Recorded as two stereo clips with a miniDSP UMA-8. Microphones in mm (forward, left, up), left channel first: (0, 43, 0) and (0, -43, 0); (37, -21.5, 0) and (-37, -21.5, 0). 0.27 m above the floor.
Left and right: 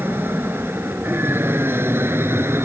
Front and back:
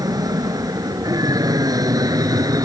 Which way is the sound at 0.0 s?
155° right.